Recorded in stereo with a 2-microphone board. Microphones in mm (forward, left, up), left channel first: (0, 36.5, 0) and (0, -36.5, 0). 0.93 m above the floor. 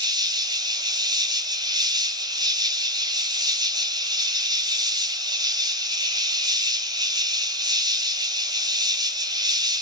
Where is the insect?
75° right (ahead or behind), 3 m.